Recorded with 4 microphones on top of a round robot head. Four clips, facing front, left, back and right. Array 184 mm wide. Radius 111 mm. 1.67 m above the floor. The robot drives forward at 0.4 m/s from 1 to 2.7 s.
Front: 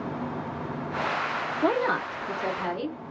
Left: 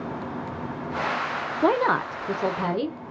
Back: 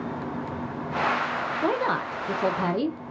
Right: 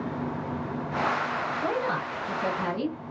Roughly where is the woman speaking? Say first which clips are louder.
Left 10 dB, front 1 dB; left.